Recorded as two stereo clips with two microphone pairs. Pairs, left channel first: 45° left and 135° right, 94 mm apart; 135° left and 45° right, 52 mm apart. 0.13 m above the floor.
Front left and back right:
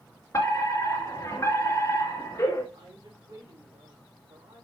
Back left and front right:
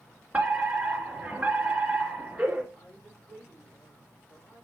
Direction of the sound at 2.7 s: 170° right.